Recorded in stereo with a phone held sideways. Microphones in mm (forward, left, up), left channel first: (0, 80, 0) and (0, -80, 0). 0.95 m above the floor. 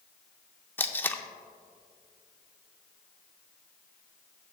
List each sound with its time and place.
0.8 s tape being pulled: 10° left (ahead or behind), 0.5 m